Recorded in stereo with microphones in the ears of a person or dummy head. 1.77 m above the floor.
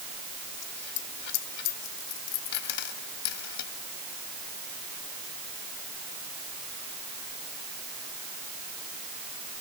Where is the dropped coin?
65° left (ahead or behind).